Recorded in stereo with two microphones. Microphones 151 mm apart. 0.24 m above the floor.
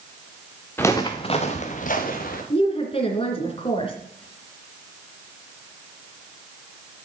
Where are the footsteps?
15° left (ahead or behind), 1.5 m; by 2.4 s 70° left (ahead or behind), 2.5 m.